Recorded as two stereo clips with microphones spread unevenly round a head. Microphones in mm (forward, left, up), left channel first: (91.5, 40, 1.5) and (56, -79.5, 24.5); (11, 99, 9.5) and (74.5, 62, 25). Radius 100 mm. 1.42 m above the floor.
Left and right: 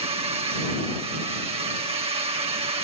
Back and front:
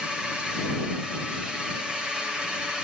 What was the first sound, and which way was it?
A drone, 125° right.